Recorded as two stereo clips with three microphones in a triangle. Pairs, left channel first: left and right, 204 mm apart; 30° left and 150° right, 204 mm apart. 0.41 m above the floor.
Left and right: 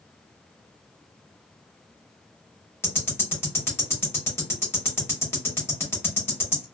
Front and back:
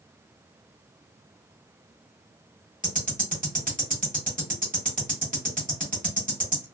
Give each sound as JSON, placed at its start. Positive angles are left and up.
{"t": 2.8, "sound": "ticking", "azimuth_deg": 170, "distance_m": 1.2}